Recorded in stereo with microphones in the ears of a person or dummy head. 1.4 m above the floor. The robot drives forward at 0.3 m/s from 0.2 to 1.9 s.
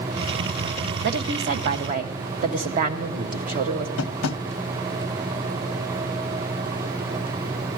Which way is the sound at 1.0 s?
50° right (ahead or behind).